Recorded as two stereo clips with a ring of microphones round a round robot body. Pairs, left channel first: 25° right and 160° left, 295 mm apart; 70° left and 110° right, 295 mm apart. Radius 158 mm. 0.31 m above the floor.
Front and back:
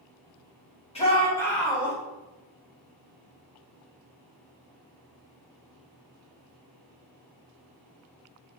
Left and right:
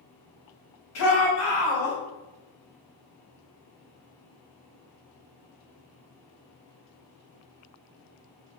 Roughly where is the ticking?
No ticking in this recording.